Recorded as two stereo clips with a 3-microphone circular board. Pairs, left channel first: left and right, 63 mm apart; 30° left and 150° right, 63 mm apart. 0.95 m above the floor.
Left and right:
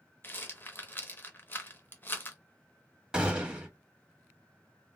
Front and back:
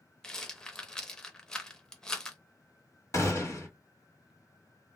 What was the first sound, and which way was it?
A rattle, 100° left.